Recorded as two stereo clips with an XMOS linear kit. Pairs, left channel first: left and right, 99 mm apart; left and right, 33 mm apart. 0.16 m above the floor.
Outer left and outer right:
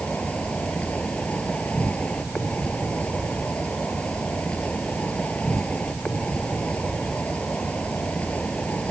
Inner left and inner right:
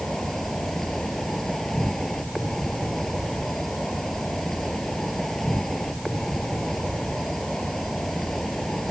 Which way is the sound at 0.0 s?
10° left (ahead or behind).